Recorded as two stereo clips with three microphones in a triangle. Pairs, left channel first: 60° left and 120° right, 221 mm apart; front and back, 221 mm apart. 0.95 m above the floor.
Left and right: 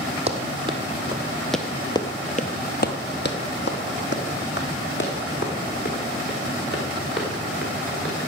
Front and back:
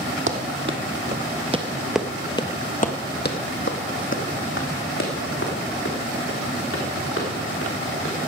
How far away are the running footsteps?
About 1.7 m.